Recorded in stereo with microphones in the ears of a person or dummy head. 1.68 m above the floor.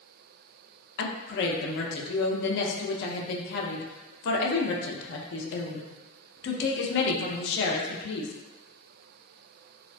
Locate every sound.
1.0 s a woman speaking: 65° left (ahead or behind), 0.5 m